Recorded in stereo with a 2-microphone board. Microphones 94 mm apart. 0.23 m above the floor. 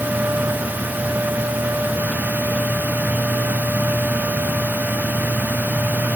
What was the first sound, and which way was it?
Only background noise.